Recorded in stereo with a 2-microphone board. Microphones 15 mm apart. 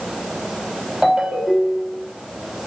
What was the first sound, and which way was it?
A ringtone, 80° right.